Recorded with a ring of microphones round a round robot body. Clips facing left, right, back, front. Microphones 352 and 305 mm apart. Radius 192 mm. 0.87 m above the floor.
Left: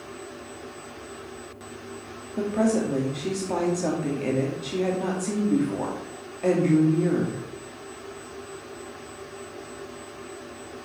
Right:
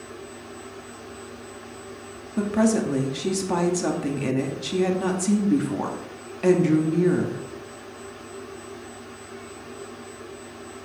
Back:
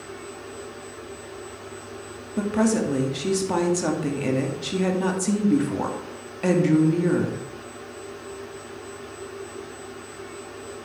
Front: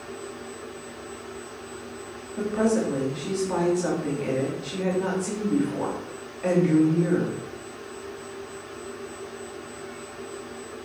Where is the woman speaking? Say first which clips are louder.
Right 2 dB, back 2 dB; 145° right, 2 m.